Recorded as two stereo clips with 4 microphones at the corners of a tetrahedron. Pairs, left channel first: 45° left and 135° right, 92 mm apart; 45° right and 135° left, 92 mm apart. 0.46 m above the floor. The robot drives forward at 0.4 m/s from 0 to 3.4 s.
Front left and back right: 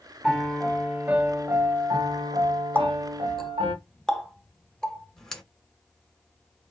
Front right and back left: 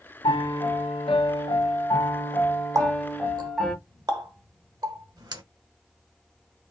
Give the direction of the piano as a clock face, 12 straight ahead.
1 o'clock.